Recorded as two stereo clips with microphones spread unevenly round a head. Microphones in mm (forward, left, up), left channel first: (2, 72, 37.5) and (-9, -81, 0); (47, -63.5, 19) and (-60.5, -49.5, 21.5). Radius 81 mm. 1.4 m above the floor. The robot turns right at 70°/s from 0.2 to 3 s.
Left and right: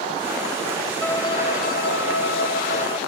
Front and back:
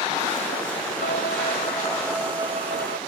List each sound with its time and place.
1.0 s a violin: 10° left; by 3.0 s 145° left